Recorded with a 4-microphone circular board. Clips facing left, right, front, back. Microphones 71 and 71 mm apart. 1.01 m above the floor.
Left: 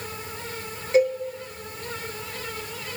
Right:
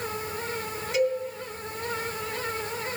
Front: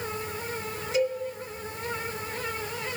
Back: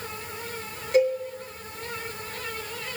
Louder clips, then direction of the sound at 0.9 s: Left 5 dB, back 5 dB; 145° left.